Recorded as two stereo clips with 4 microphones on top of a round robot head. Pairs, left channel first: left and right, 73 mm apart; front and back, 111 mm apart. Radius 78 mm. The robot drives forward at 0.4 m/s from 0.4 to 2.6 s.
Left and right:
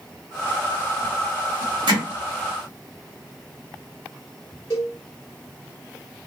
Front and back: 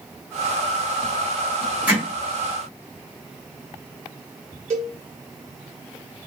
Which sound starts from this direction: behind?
A cowbell, at 4.7 s.